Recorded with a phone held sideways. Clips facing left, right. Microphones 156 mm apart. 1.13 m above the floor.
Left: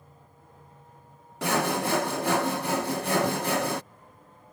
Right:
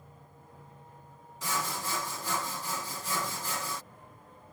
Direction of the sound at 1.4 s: 65° left (ahead or behind).